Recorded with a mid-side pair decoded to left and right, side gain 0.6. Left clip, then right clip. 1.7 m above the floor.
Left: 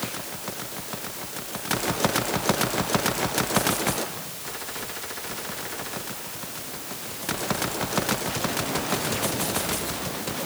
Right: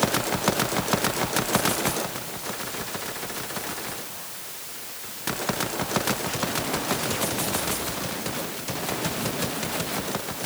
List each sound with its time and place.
Only background noise.